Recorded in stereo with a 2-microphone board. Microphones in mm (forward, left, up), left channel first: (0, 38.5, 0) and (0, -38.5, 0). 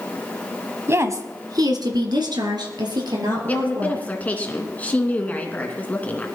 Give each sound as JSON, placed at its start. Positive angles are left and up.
{"t": 0.9, "sound": "a woman speaking", "side_deg": -35, "distance_m": 1.3}
{"t": 3.5, "sound": "a woman speaking", "side_deg": 20, "distance_m": 2.5}